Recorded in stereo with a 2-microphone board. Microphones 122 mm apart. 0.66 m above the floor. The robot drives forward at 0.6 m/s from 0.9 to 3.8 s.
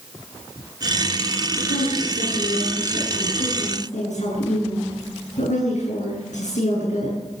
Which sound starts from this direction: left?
A woman speaking, at 1.6 s.